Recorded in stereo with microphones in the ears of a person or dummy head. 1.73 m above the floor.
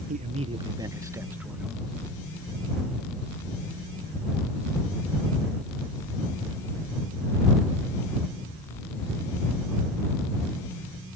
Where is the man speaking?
45° right (ahead or behind); by 1.9 s 5° right (ahead or behind).